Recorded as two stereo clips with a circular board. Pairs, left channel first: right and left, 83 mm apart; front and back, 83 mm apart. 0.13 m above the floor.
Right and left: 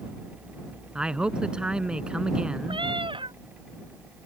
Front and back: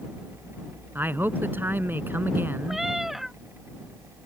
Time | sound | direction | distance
0.9 | a man speaking | 155° left | ?
2.7 | a cat meowing | 95° left | ?